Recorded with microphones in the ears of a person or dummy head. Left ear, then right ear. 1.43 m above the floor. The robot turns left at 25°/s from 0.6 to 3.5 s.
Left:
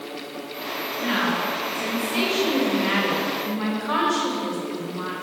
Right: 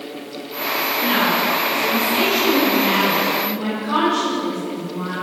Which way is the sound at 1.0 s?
170° right.